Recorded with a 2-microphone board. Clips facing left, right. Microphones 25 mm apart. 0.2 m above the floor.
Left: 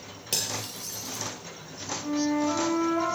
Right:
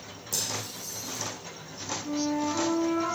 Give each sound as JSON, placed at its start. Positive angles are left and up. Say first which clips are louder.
{"t": 0.3, "sound": "cutlery clinking", "louder": "left 2 dB", "side_deg": 65, "distance_m": 2.5}
{"t": 2.0, "sound": "a flute", "louder": "left 3 dB", "side_deg": 60, "distance_m": 6.5}